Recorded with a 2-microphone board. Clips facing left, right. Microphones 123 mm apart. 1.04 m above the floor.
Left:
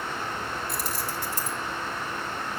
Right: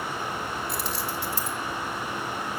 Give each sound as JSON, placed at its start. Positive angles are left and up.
{"t": 0.7, "sound": "keys jangling", "side_deg": 45, "distance_m": 2.0}